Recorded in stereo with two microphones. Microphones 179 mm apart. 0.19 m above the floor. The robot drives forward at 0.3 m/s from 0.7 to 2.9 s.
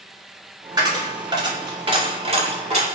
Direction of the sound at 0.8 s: 25° right (ahead or behind).